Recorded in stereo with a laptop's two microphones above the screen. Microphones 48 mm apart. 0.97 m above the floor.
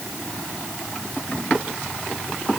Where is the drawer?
No drawer in this recording.